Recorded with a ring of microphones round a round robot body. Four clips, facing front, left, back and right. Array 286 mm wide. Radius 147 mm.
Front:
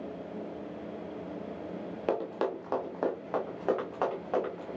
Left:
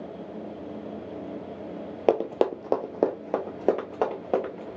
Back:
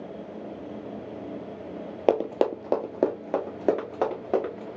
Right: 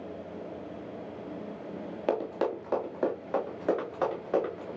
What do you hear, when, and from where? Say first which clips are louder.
2.1 s running footsteps: left 6 dB, back 8 dB; 140° left, 0.5 m; by 4.7 s 125° left, 2.5 m